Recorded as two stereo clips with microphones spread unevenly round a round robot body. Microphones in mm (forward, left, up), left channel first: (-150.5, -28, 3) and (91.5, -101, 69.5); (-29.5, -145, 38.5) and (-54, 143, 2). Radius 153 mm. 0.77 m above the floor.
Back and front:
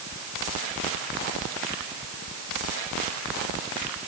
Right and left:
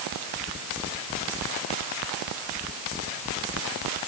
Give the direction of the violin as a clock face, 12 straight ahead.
I don't hear a violin.